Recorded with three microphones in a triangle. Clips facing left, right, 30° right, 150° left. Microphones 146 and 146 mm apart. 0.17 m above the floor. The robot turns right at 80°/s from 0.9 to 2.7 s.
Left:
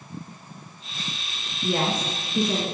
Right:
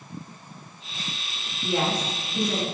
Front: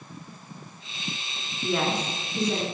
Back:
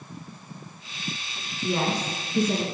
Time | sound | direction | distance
1.6 | a woman speaking | 85° left | 2 m